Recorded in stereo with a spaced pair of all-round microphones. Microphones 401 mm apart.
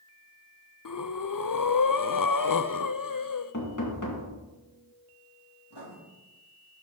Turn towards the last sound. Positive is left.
turn(degrees=85)